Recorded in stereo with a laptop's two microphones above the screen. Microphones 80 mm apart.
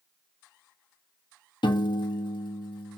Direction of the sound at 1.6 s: 75° left (ahead or behind).